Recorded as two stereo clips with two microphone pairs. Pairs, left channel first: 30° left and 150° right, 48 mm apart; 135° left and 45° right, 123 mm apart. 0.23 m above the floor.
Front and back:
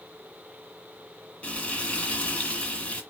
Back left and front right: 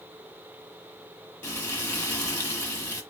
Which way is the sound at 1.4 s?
70° left.